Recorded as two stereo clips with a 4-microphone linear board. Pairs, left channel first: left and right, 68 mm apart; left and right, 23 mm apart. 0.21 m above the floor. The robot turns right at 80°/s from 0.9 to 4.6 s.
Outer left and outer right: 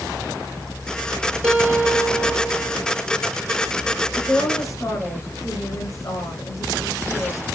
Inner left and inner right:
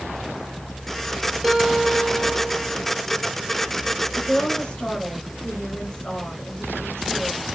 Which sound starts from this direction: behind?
A guitar, at 1.4 s.